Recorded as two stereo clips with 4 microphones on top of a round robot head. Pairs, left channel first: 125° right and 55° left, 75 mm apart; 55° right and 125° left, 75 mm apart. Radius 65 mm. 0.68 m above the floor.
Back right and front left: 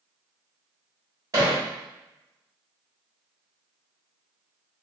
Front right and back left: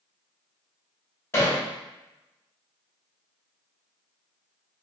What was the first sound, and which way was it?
Hammering, 5° left.